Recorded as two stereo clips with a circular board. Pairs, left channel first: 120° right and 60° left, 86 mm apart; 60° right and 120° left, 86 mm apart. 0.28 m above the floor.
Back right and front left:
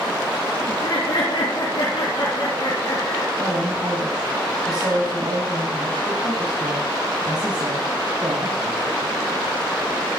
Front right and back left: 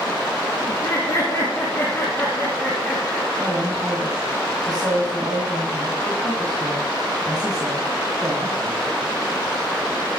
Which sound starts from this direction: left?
A woman speaking, at 3.4 s.